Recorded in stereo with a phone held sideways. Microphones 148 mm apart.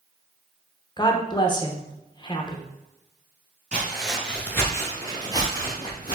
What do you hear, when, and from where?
1.0 s a woman speaking: 30° left (ahead or behind), 0.6 m
3.7 s footsteps: 10° right (ahead or behind), 1.3 m; by 6.1 s 25° left (ahead or behind), 2.5 m